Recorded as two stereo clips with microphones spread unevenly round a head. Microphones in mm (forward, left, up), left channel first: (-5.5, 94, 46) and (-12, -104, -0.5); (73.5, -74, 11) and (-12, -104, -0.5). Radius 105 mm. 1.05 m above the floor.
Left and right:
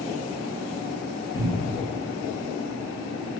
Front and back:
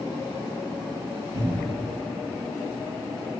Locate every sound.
1.3 s a cupboard door: 165° left, 0.8 m